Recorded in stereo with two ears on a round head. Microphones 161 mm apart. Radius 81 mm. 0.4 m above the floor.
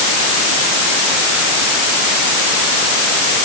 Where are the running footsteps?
I don't hear running footsteps.